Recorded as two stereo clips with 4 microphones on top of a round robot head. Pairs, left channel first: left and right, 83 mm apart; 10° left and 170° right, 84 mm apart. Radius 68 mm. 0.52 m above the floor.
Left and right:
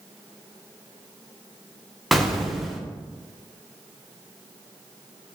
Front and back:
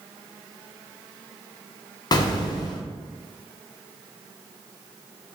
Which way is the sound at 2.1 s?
Straight ahead.